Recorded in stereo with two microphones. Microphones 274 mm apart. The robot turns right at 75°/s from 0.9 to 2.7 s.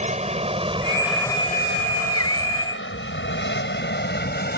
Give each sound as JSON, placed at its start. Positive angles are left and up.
{"t": 0.0, "sound": "an aircraft", "side_deg": -25}